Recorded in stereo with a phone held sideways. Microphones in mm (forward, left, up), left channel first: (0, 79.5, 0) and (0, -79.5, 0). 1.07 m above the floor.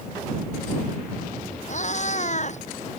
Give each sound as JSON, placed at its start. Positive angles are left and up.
{"t": 1.7, "sound": "a cat meowing", "side_deg": 50}